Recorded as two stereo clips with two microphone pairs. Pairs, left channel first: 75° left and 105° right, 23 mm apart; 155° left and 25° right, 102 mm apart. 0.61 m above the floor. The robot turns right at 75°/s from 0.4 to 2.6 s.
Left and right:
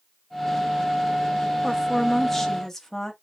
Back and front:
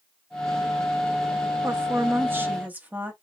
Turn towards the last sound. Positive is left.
turn(degrees=20)